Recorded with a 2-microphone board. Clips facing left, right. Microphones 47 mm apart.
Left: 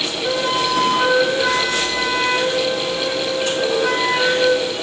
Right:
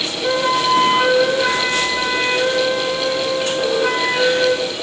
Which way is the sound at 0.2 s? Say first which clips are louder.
Right 3 dB; 40° right (ahead or behind).